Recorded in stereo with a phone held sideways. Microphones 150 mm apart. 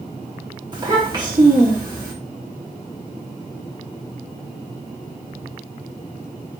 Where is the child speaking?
30° right (ahead or behind), 1.0 m.